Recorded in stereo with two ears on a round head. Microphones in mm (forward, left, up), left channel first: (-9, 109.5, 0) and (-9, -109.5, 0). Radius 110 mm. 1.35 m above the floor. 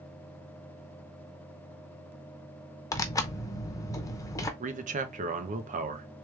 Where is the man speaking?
30° right (ahead or behind), 0.9 m.